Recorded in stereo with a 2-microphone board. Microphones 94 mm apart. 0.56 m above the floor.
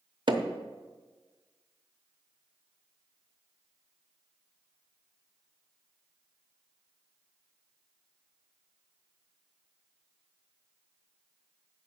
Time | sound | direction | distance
0.3 | hammering | 55° right (ahead or behind) | 0.9 m